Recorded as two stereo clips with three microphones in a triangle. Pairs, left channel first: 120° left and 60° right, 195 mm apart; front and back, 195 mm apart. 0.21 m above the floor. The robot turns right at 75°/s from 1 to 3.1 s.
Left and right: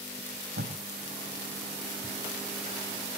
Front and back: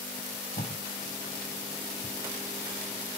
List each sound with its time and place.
0.2 s tape being pulled: 50° right, 6 m